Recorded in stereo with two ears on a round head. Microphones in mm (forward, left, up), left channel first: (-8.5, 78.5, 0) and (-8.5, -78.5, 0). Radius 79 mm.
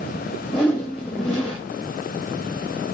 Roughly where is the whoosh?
Centre.